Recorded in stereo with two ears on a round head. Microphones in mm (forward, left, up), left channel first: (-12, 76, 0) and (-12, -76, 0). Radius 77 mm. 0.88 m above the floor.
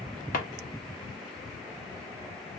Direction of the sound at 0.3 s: 55° left (ahead or behind).